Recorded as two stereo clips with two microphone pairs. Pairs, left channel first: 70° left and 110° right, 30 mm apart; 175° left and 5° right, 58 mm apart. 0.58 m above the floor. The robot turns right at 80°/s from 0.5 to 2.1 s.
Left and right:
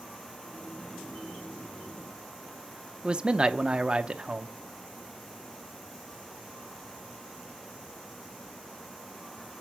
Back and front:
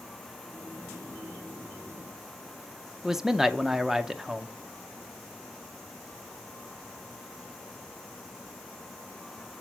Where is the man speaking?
85° right, 0.7 m.